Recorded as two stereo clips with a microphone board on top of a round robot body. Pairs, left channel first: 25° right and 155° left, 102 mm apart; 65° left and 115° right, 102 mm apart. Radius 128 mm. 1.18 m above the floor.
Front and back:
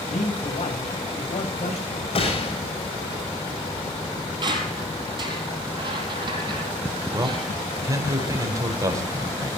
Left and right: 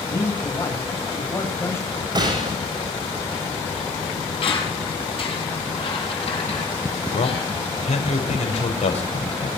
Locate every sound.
0.1 s a man speaking: straight ahead, 9 m
2.1 s a gunshot: 60° right, 7.5 m
4.4 s a squeak: 110° left, 6 m
7.1 s a man speaking: 95° left, 4.5 m